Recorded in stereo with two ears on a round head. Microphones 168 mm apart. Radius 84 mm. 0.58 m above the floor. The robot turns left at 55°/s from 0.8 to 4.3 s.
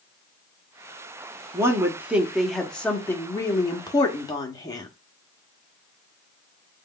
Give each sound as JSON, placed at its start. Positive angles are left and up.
{"t": 1.5, "sound": "a woman speaking", "side_deg": -15, "distance_m": 0.7}